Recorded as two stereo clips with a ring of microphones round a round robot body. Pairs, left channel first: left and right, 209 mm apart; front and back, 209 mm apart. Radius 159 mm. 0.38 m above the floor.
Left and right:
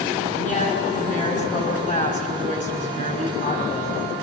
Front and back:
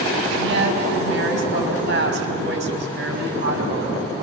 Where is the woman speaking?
150° left, 4 m.